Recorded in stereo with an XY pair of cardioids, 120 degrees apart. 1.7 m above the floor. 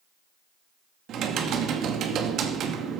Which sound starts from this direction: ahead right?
Typing on a keyboard, at 1.1 s.